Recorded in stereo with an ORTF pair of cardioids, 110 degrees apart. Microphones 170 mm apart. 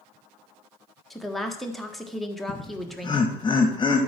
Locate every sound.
1.1 s a woman speaking: straight ahead, 1.4 m
2.5 s laughter: 30° left, 1.4 m